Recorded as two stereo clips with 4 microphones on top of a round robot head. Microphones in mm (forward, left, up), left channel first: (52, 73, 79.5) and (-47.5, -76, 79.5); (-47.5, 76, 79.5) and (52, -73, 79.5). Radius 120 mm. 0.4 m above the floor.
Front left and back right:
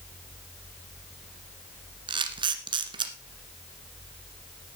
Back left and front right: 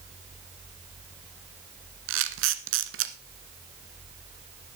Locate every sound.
2.1 s a camera shutter: 60° right, 1.3 m